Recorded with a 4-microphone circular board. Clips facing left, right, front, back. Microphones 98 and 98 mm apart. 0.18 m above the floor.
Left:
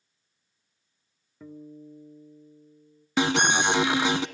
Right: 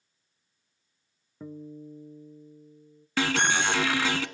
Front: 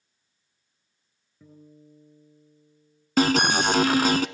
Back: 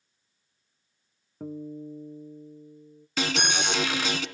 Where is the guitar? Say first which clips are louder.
Right 2 dB, back 15 dB; 160° right, 1.1 m.